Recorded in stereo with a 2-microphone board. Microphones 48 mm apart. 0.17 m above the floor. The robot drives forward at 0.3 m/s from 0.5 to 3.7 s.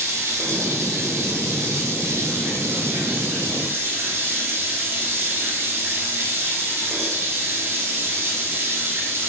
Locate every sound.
0.0 s running water: 85° right, 2.0 m; by 9.3 s 60° right (ahead or behind), 2 m